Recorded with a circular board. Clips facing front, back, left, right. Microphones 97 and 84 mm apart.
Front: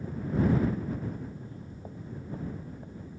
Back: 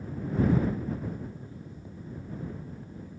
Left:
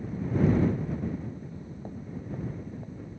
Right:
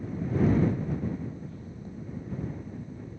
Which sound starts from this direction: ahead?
Footsteps, at 1.4 s.